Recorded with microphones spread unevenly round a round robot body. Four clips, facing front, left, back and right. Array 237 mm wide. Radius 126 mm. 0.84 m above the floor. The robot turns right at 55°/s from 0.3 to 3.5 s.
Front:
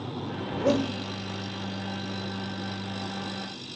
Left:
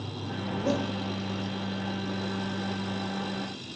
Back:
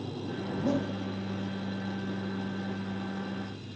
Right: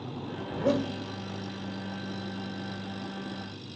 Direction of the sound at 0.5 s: 10° right.